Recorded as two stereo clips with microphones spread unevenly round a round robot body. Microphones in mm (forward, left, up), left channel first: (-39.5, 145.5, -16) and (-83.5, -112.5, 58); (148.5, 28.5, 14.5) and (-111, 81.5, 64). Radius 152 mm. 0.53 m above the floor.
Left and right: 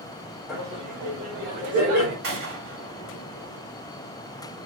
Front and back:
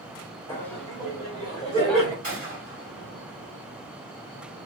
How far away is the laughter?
About 1.1 m.